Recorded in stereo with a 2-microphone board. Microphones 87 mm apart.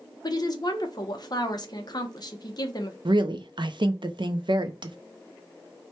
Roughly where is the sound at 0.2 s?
Left.